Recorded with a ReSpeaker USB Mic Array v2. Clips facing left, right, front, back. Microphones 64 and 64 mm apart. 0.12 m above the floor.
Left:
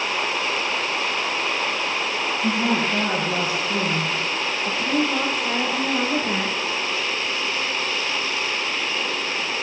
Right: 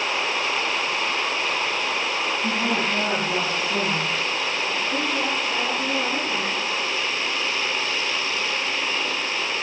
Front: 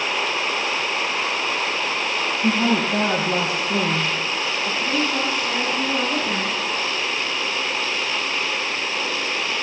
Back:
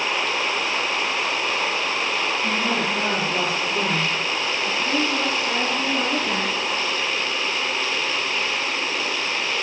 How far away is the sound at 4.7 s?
About 7.5 m.